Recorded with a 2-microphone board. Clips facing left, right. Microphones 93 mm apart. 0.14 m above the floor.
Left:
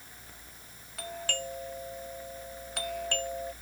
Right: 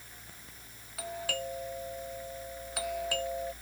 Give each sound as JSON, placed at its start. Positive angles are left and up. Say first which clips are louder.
{"t": 1.0, "sound": "a doorbell", "louder": "right 1 dB", "side_deg": -5}